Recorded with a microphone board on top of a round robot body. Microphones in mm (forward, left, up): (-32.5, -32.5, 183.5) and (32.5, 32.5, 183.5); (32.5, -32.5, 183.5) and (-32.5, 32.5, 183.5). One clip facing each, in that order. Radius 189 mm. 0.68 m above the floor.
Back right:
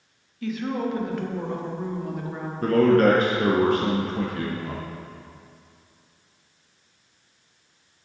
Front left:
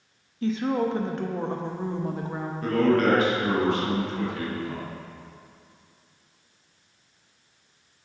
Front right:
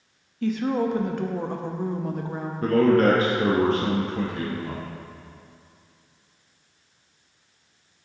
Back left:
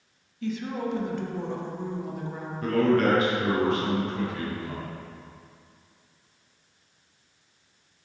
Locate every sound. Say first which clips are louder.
0.4 s a woman speaking: front left 2 dB, front right 7 dB; 10° right, 0.9 m
2.6 s a man speaking: back right 4 dB, front right 4 dB; 95° right, 1.0 m